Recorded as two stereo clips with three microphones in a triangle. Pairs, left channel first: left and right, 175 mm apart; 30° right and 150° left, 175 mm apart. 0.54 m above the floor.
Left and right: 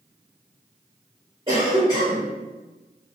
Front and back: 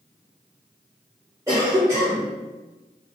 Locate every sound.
1.5 s a cough: 140° right, 1.5 m